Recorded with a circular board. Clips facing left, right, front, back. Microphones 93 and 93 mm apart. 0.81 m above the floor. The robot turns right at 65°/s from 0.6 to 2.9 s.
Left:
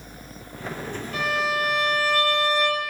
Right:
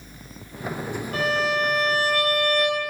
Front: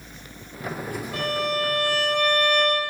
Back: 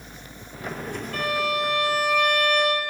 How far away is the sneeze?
I don't hear a sneeze.